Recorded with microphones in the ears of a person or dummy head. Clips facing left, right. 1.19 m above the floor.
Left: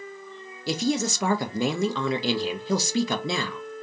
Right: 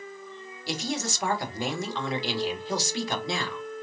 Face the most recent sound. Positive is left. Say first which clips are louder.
# left 6 dB
turn(degrees=60)  # may be behind; listen again after turning